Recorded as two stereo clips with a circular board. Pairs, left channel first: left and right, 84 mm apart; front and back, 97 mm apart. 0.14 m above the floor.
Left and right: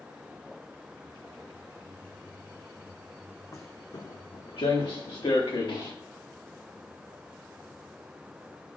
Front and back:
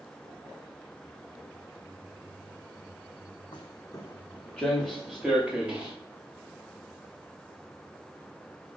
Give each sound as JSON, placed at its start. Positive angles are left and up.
{"t": 3.5, "sound": "footsteps", "azimuth_deg": 35, "distance_m": 0.6}